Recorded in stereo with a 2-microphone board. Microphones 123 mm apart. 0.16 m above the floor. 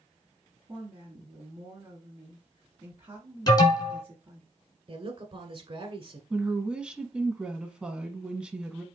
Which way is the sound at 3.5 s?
35° left (ahead or behind).